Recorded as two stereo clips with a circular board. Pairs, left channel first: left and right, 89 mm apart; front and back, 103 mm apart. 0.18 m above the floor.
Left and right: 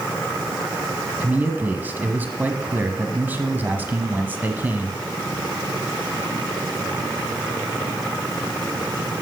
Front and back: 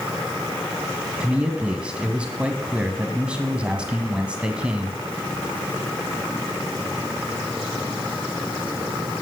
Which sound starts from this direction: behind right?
A man speaking, at 1.2 s.